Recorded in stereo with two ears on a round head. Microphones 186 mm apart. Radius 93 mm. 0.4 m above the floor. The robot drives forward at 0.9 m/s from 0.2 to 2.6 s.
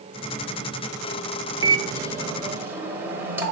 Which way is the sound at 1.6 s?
20° right (ahead or behind).